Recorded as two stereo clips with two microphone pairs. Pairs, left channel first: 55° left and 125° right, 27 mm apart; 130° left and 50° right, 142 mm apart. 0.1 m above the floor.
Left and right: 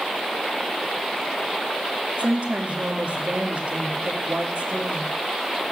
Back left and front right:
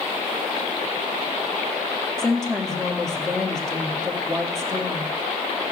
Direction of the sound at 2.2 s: 145° right.